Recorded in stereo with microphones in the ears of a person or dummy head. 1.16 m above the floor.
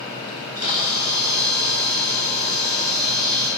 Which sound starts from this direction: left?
A camera shutter, at 0.3 s.